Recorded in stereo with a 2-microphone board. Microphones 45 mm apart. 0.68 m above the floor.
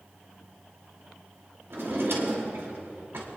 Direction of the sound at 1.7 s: 70° right (ahead or behind).